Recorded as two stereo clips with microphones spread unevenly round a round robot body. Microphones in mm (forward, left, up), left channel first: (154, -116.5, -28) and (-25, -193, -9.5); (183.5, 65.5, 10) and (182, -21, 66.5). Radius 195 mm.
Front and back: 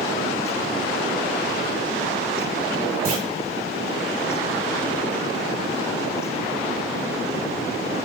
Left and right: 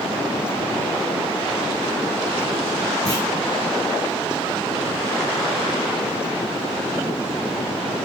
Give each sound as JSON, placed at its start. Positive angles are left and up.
{"t": 3.0, "sound": "a clunk", "azimuth_deg": 160, "distance_m": 1.7}